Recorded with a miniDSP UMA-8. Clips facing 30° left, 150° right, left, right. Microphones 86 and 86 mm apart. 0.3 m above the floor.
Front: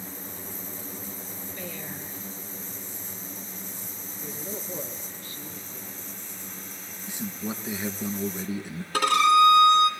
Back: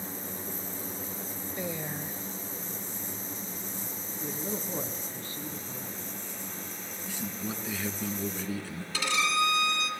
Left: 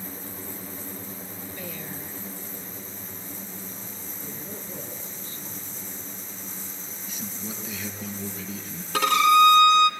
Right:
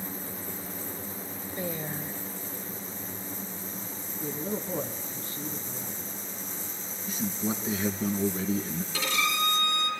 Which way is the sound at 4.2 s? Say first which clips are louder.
Back 2 dB, right 8 dB; 95° right.